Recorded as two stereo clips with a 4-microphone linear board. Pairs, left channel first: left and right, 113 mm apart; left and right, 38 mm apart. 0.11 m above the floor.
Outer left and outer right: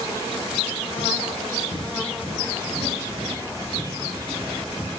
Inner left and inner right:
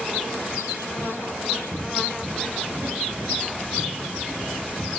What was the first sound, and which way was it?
Footsteps, 50° right (ahead or behind).